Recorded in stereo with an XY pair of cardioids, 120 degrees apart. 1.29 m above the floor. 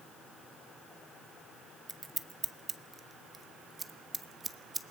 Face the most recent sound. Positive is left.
turn(degrees=-25)